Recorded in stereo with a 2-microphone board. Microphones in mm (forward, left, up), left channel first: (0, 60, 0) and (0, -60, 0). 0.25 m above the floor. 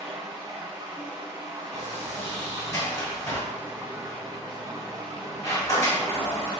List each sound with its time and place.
0.0 s running water: 20° right (ahead or behind), 2 m
1.7 s a sliding door: 30° left (ahead or behind), 1.7 m